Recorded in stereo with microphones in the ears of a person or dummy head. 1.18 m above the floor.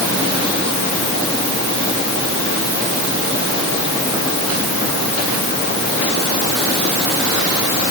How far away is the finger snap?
I don't hear a finger snap.